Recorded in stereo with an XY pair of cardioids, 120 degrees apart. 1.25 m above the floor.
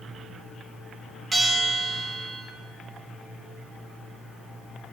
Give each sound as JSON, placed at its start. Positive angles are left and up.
{"t": 1.3, "sound": "a bell", "azimuth_deg": -20, "distance_m": 1.1}